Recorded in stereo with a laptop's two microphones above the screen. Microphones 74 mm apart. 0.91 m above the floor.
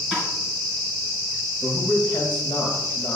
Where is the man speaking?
60° left (ahead or behind), 1.8 m.